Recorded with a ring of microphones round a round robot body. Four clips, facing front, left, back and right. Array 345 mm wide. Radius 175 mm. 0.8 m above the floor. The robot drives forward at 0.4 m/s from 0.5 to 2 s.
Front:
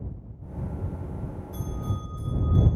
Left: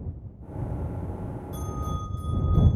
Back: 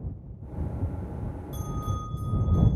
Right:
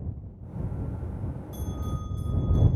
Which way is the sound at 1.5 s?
155° right.